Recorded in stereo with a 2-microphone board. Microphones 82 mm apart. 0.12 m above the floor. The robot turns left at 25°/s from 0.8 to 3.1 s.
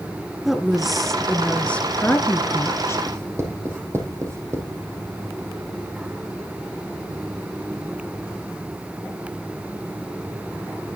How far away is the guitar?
I don't hear a guitar.